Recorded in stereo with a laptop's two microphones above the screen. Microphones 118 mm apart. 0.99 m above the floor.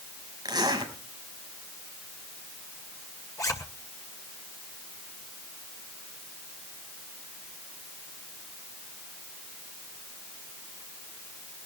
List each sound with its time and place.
0.5 s a zipper: 40° right (ahead or behind), 5 m
3.4 s a zipper: 30° left (ahead or behind), 2 m